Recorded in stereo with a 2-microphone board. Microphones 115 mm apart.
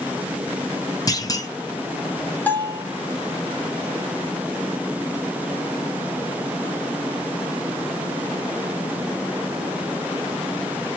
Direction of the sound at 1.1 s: 30° left (ahead or behind).